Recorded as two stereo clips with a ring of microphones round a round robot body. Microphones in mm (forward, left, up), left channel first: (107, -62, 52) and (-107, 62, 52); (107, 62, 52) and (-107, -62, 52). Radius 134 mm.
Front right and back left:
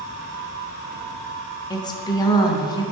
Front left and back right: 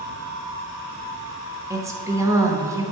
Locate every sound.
1.7 s a woman speaking: 85° right, 1.1 m